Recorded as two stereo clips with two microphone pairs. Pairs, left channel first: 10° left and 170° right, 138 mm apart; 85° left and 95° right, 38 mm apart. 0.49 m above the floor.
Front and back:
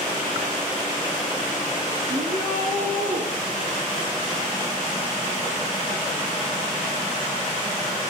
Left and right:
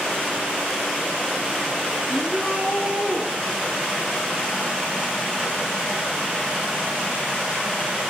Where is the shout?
150° right, 8 m.